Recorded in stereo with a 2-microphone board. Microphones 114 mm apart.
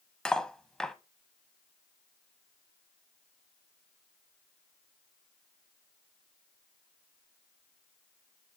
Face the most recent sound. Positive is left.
turn(degrees=5)  # may be behind; listen again after turning